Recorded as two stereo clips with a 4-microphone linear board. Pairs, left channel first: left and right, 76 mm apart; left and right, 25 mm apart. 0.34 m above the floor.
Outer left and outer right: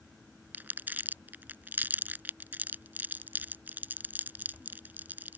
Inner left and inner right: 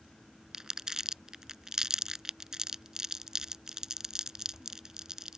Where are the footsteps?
No footsteps in this recording.